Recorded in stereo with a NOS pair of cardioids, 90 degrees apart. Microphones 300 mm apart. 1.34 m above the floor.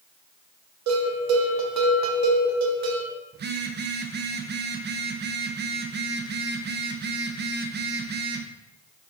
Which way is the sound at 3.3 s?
35° right.